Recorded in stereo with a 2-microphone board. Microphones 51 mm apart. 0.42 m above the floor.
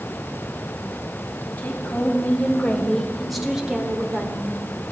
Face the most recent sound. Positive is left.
turn(degrees=-50)  # may be behind; listen again after turning